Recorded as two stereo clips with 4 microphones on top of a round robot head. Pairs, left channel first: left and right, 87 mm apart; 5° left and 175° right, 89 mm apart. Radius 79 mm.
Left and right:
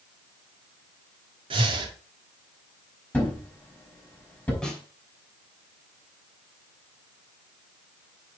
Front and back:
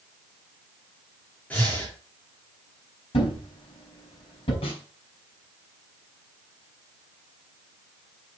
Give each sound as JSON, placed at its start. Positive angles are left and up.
{"t": 1.5, "sound": "breathing", "azimuth_deg": -75, "distance_m": 1.8}
{"t": 3.1, "sound": "a thud", "azimuth_deg": 20, "distance_m": 4.0}
{"t": 4.6, "sound": "a snare drum", "azimuth_deg": 10, "distance_m": 2.5}